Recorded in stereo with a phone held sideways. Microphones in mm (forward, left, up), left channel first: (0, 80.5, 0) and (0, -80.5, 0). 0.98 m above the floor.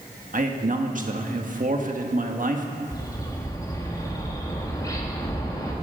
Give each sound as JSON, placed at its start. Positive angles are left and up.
{"t": 0.3, "sound": "a man speaking", "side_deg": -55, "distance_m": 1.4}
{"t": 2.9, "sound": "a bird", "side_deg": 20, "distance_m": 2.0}